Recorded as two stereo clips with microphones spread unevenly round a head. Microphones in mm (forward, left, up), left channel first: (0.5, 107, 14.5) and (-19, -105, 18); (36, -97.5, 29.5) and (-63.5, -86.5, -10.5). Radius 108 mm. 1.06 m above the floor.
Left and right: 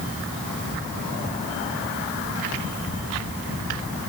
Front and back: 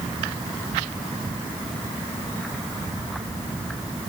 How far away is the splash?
I don't hear a splash.